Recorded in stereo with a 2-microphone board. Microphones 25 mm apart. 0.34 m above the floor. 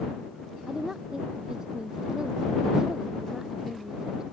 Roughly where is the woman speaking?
Right.